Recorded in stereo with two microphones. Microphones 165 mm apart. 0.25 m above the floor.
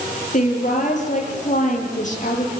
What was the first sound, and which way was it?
A woman speaking, 50° left (ahead or behind).